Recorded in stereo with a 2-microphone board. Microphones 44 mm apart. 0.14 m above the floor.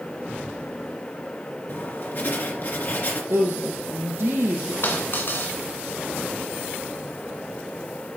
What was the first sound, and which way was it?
Writing, 55° left (ahead or behind).